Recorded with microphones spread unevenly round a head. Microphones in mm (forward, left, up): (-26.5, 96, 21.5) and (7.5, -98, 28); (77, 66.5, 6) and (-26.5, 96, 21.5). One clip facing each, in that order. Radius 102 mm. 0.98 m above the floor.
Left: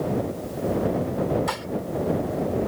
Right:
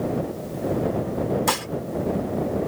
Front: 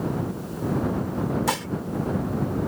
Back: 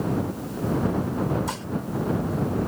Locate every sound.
1.5 s dishes clattering: 45° right